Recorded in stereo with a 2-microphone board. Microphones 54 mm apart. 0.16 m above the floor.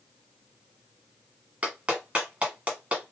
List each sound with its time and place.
1.6 s a clap: 25° right (ahead or behind), 1.2 m